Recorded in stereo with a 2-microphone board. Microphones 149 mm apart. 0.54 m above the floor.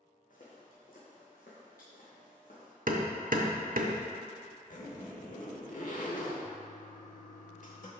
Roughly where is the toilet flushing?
Left.